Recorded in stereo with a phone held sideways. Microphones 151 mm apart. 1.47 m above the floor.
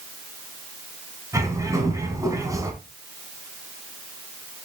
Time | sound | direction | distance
1.3 | a bird | 20° right (ahead or behind) | 2.5 m